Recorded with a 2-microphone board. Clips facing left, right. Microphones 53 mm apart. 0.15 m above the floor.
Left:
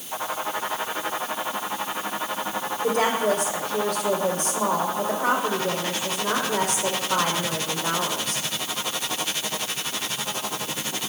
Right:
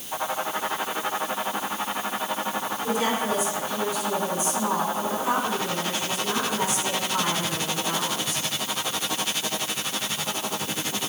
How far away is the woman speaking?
About 6.5 m.